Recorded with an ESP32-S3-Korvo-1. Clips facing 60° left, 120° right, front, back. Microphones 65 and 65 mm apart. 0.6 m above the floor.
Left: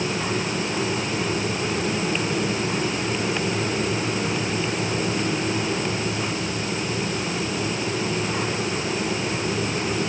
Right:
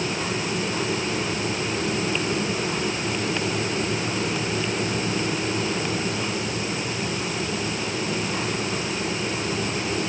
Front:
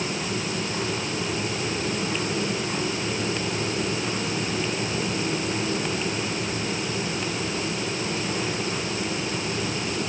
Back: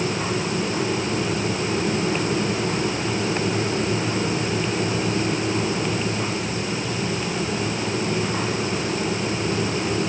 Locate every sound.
Only background noise.